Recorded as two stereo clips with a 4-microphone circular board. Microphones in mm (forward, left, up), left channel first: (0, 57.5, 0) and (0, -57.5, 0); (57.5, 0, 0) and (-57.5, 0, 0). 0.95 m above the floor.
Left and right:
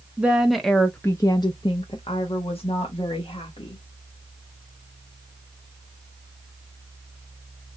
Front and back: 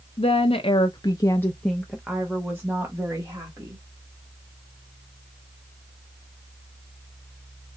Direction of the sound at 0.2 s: 15° right.